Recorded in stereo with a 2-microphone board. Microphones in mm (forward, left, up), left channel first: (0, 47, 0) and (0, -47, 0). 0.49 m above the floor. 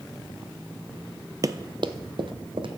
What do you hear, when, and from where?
1.4 s running footsteps: 40° right (ahead or behind), 0.5 m; by 2.7 s 65° right (ahead or behind), 1.3 m